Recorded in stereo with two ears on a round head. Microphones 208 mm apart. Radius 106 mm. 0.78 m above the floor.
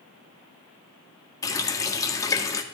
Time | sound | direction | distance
1.4 | a running tap | 15° left (ahead or behind) | 0.8 m